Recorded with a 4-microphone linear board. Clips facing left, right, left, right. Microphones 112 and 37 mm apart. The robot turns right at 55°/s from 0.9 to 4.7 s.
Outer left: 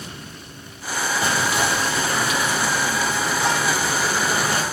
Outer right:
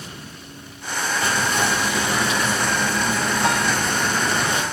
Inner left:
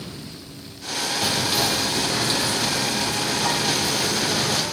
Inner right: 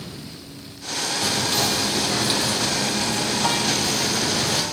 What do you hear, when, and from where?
1.2 s whispering: 155° left, 5 m; by 4.6 s 20° right, 5 m